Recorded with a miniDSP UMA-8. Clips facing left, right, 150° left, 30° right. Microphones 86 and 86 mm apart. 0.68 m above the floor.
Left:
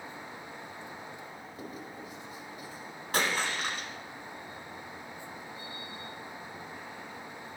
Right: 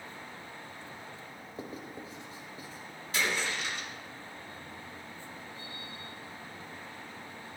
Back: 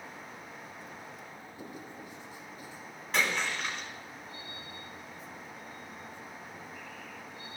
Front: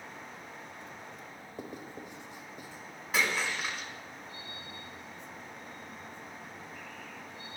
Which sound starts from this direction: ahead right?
Writing, at 1.6 s.